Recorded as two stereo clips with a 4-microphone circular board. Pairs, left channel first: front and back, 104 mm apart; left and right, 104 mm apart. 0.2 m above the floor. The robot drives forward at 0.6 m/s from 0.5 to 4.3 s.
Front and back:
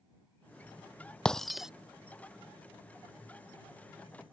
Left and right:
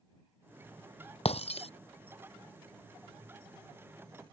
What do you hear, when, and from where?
1.2 s breaking glass: 80° left; by 1.7 s 95° left